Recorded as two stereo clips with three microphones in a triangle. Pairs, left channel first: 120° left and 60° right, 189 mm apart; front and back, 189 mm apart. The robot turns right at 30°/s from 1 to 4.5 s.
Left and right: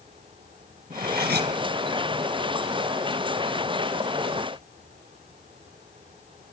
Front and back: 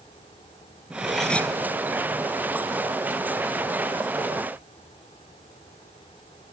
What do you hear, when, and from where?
0.9 s cutlery clinking: 95° right, 1.9 m; by 1.5 s 80° right, 1.9 m